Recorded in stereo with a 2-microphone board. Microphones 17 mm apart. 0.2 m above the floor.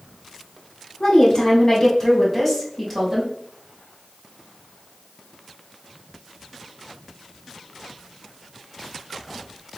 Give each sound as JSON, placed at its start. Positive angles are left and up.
{"t": 1.0, "sound": "a woman speaking", "side_deg": 50, "distance_m": 1.8}